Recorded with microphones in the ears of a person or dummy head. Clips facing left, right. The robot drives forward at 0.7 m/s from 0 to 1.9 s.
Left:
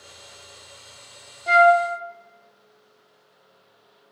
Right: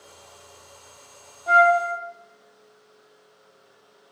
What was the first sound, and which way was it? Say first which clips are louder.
A flute: left 3 dB; 35° left (ahead or behind).